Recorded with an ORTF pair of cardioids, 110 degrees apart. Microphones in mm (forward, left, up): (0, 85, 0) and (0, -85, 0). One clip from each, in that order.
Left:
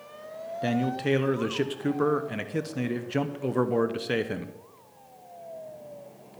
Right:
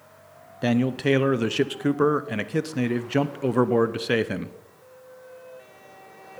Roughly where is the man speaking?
Ahead right.